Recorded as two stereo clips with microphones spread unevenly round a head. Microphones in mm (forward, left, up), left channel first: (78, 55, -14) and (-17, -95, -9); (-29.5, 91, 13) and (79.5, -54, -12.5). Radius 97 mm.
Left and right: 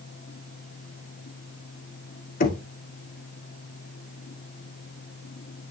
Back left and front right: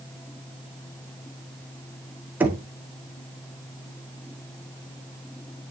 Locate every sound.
2.4 s knocking: 25° left, 1.8 m